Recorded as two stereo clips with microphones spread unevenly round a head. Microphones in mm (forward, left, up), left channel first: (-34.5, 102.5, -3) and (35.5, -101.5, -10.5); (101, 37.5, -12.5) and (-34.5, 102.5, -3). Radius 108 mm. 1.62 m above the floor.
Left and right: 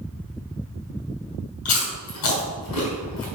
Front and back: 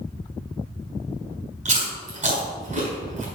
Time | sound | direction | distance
1.6 | chewing | 125° left | 5 m